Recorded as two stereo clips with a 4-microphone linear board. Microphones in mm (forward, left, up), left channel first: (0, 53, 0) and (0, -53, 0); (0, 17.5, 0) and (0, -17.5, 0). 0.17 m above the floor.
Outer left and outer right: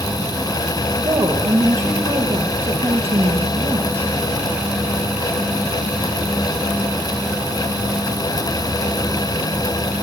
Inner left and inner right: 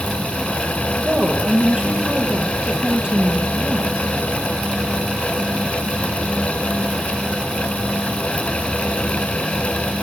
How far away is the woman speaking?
About 6 m.